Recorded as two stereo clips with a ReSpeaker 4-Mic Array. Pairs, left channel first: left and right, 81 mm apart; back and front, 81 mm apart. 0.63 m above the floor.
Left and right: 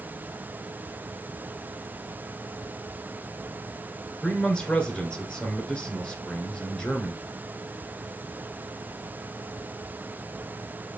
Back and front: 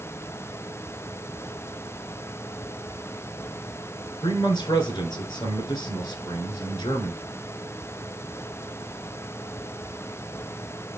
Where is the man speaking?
165° left, 2.0 m.